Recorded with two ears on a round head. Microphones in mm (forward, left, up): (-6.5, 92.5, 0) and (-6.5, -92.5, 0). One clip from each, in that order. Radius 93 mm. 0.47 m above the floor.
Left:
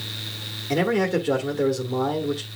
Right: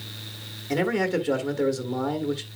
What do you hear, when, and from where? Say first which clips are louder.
0.7 s a man speaking: left 2 dB; 10° right (ahead or behind), 1.3 m